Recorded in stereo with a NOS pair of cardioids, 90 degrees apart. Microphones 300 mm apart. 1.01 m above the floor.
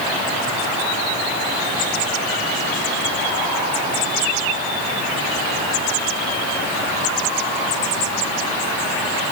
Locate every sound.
Only background noise.